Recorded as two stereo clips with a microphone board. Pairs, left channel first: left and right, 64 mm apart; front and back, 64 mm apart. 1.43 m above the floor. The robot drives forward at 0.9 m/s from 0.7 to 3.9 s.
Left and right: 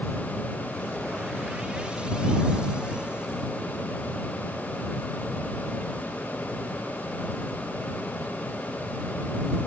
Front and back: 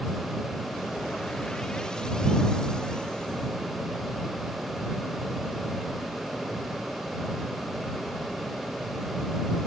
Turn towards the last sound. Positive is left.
No sound to turn to.